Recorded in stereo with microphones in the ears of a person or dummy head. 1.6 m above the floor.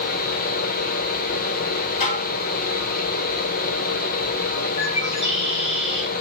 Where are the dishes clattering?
40° left (ahead or behind), 3.5 m.